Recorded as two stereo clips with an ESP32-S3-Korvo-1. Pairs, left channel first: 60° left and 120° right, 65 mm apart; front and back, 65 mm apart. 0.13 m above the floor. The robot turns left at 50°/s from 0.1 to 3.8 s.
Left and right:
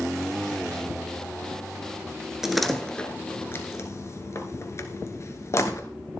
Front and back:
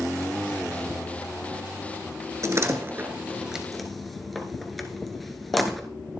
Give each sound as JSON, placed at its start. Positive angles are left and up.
{"t": 2.4, "sound": "a door slam", "azimuth_deg": 155, "distance_m": 1.4}